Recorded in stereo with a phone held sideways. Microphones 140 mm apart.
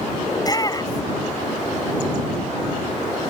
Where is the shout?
30° left (ahead or behind).